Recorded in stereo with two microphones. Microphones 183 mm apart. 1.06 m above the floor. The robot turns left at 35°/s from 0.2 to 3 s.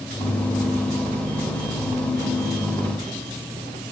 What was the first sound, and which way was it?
Only background noise.